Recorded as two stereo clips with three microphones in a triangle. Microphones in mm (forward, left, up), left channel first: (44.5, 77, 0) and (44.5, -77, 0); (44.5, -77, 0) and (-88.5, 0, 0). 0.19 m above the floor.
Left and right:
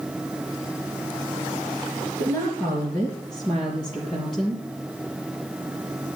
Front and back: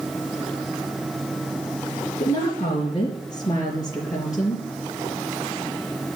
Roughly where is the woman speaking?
Ahead.